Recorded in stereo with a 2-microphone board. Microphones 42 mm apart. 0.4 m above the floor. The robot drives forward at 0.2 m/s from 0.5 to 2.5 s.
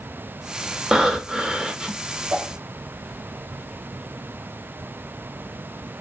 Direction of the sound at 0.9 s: 20° right (ahead or behind).